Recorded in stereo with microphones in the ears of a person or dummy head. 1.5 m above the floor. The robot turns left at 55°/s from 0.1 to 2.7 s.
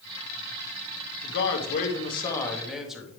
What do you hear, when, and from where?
1.2 s a man speaking: 75° left, 1.2 m; by 3.1 s 5° right, 1.2 m